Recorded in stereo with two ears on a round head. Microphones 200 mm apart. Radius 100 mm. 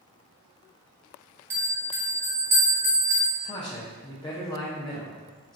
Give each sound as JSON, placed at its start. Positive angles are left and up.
{"t": 1.5, "sound": "a bell", "side_deg": -10, "distance_m": 0.9}
{"t": 3.4, "sound": "a man speaking", "side_deg": 20, "distance_m": 0.6}